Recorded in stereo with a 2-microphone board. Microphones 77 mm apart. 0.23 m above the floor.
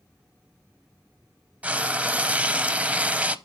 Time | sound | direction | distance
1.6 | frying | 20° right (ahead or behind) | 0.5 m